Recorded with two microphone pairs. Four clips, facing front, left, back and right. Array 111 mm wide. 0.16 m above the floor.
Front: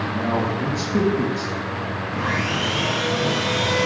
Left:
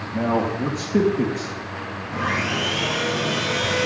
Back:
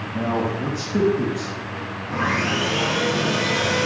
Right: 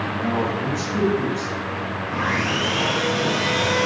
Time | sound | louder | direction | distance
0.1 | a man speaking | left 4 dB, back 1 dB | 95° left | 2.5 m
2.1 | sawing | even, back 3 dB | 150° right | 3.5 m